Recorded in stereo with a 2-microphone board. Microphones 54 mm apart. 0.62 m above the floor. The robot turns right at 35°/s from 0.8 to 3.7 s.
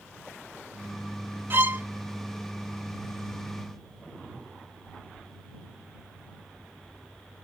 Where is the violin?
40° right (ahead or behind).